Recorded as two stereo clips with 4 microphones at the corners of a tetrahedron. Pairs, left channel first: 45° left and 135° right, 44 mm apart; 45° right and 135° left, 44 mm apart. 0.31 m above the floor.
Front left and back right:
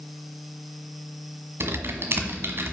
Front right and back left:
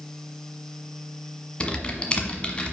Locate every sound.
1.6 s typing on a keyboard: 110° right, 1.2 m